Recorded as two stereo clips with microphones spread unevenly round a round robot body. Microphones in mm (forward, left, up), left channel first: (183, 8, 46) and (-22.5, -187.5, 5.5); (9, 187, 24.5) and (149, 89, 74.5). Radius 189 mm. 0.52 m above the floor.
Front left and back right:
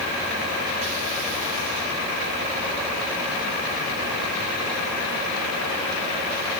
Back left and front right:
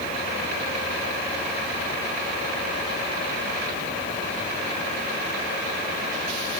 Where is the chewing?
No chewing in this recording.